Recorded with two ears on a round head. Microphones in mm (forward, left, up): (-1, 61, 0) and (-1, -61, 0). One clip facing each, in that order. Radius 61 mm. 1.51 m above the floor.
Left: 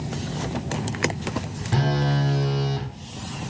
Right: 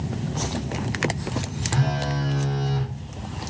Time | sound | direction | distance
1.7 | a phone buzzing | 30° left (ahead or behind) | 0.6 m